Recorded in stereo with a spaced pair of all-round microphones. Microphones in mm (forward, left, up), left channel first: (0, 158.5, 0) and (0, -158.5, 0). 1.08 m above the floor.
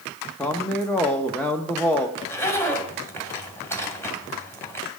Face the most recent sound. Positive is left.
turn(degrees=10)  # may be behind; listen again after turning